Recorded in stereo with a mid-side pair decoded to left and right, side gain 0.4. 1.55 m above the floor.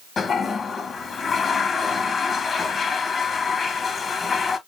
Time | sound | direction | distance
0.2 | a toilet flushing | 45° left | 1.3 m